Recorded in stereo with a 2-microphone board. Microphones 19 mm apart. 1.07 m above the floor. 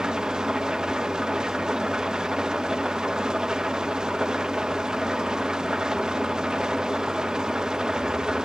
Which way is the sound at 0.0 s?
40° right (ahead or behind).